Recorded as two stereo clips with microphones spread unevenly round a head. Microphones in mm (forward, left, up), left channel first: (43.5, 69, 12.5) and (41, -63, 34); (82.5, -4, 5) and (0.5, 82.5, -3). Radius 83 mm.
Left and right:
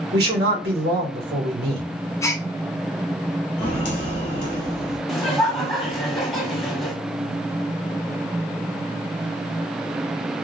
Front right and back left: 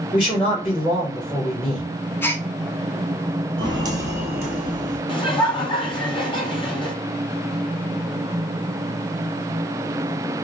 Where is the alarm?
I don't hear an alarm.